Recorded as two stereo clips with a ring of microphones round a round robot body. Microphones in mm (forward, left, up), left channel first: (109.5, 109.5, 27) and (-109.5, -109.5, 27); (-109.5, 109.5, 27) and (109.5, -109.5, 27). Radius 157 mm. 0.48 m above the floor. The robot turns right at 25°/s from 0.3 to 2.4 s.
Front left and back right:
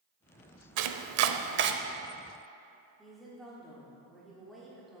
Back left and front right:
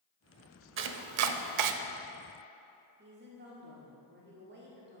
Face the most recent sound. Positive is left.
turn(degrees=-45)